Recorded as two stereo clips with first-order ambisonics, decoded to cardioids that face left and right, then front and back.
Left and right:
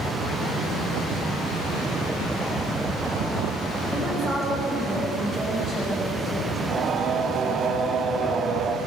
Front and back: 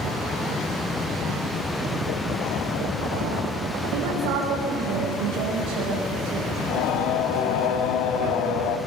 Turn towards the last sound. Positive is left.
turn(degrees=-30)